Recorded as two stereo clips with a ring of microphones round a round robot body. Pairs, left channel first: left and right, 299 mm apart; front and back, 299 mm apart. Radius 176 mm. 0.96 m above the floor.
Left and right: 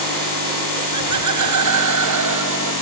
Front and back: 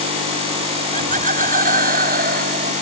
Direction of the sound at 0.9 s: 115° right.